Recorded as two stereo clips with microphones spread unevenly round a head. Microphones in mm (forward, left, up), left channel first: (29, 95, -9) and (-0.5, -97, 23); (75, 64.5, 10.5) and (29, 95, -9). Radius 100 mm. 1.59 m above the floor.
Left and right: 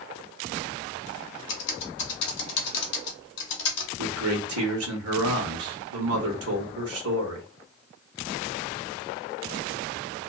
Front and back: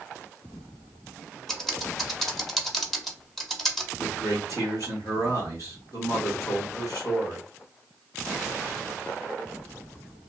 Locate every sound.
1.5 s typing on a keyboard: 45° left, 0.8 m
4.0 s a man speaking: 90° right, 1.1 m